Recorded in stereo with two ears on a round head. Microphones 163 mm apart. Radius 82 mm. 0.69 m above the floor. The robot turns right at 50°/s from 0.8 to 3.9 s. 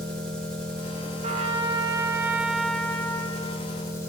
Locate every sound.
0.0 s an engine running: 5° left, 3 m; by 4.1 s 160° left, 3 m
1.2 s a trumpet: 75° right, 0.8 m; by 3.7 s 45° left, 0.8 m